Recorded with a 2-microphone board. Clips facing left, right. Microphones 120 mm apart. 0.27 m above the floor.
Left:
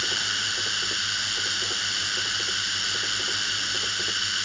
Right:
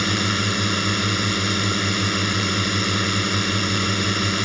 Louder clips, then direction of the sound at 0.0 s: Right 11 dB; 65° right (ahead or behind).